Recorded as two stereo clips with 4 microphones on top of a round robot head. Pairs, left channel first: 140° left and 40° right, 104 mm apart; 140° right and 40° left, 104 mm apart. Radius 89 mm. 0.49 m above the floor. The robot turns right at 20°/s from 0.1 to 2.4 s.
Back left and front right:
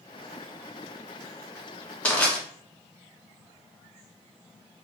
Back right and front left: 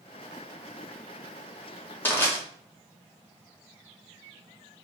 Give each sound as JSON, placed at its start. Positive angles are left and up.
{"t": 2.0, "sound": "crushing", "azimuth_deg": -165, "distance_m": 1.3}